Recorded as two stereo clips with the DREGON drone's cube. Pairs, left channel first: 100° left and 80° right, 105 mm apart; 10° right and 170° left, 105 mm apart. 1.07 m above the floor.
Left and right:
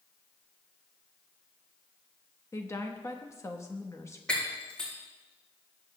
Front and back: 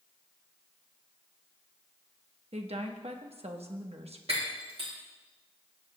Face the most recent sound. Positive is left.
turn(degrees=180)